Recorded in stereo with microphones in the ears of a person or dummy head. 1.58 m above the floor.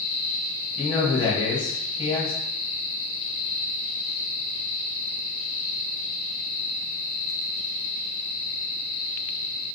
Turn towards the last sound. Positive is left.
turn(degrees=25)  # may be behind; listen again after turning